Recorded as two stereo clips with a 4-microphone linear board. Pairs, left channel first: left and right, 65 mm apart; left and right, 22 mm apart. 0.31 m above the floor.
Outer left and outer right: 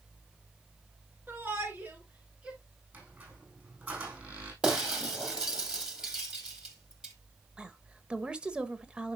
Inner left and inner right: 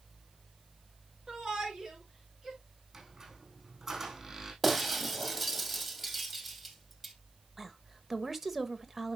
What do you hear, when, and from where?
1.3 s a shout: 35° right (ahead or behind), 4.5 m; by 2.6 s 20° right (ahead or behind), 4 m
2.9 s a squeak: 30° right (ahead or behind), 5 m
4.6 s breaking glass: 15° right (ahead or behind), 2 m
7.6 s a woman speaking: 15° right (ahead or behind), 1.1 m